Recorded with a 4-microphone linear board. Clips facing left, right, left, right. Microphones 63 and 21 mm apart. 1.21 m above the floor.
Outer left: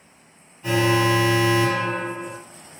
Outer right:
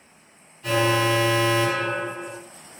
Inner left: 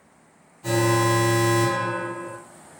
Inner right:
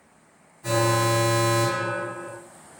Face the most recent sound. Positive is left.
turn(degrees=30)  # may be behind; listen again after turning